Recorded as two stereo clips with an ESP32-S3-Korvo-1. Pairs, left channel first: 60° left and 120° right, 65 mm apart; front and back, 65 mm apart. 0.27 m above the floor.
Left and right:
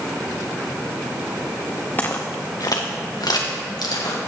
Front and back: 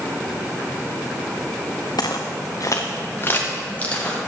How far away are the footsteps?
About 1.1 m.